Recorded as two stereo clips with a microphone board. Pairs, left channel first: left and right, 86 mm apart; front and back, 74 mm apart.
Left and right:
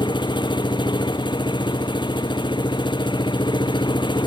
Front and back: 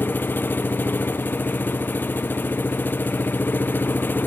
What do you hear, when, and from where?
0.0 s an engine running: 65° left